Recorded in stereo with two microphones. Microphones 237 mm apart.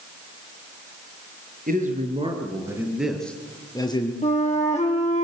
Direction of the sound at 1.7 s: 35° right (ahead or behind).